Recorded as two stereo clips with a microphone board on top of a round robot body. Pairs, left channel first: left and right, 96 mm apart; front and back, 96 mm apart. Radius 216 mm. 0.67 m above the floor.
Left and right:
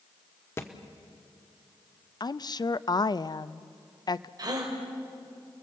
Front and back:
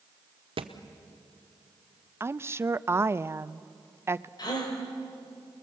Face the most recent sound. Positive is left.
turn(degrees=-45)